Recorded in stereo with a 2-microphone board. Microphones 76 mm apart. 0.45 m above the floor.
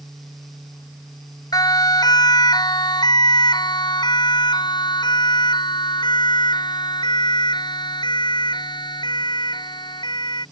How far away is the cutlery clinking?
No cutlery clinking in this recording.